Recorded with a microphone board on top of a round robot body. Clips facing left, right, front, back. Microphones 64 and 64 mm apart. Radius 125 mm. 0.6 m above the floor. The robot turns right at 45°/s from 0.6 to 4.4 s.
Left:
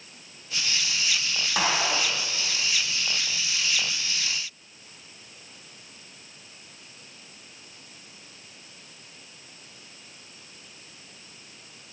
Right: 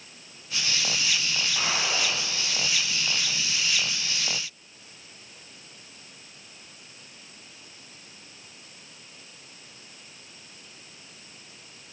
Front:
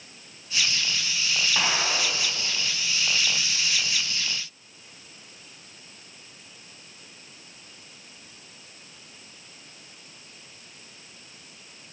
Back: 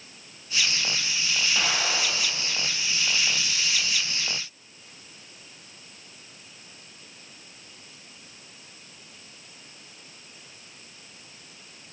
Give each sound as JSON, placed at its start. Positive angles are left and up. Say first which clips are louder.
{"t": 1.6, "sound": "a gunshot", "louder": "left 5 dB, front 2 dB", "azimuth_deg": 75, "distance_m": 0.8}